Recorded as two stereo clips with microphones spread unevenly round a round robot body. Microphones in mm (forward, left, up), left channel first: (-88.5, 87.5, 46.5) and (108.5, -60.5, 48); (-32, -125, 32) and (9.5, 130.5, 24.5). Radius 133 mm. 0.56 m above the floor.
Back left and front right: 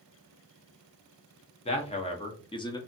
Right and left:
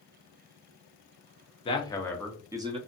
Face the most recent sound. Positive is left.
turn(degrees=95)